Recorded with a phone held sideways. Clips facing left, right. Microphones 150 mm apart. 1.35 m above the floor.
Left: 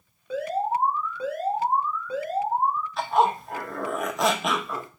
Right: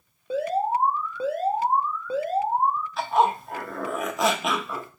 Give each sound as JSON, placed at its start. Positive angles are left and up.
{"t": 0.3, "sound": "an alarm", "side_deg": -30, "distance_m": 1.0}
{"t": 3.0, "sound": "a zipper", "side_deg": 0, "distance_m": 0.6}